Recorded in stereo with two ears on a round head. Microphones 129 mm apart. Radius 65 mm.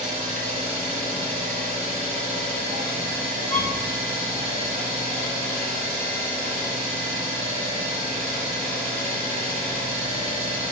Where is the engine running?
55° right (ahead or behind), 1.8 m.